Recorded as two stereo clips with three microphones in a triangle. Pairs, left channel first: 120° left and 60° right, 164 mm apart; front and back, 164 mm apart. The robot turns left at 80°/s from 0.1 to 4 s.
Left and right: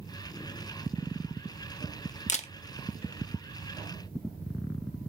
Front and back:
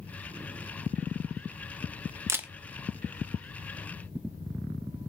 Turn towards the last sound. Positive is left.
turn(degrees=-25)